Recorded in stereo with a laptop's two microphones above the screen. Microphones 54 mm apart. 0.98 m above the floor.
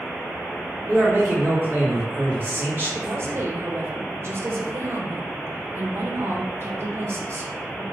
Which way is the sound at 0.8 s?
35° right (ahead or behind).